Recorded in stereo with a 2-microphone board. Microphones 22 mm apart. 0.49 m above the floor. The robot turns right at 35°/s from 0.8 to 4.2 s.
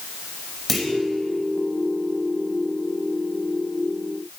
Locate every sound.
0.7 s a clunk: 5° left (ahead or behind), 2.5 m; by 0.9 s centre (ahead or behind), 2.5 m